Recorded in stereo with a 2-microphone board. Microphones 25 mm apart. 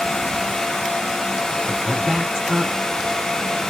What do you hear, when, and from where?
1.7 s a woman speaking: 15° left (ahead or behind), 2.5 m